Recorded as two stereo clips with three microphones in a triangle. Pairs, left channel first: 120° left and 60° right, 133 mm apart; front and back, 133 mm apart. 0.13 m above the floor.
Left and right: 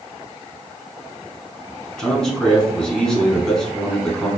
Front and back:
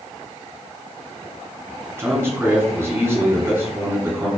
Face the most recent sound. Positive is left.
turn(degrees=-165)